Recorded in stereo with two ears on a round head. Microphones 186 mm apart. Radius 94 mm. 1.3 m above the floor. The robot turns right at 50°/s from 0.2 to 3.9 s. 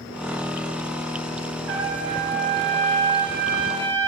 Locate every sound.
1.7 s a trumpet: 100° right, 1.4 m; by 4.1 s 10° left, 1.4 m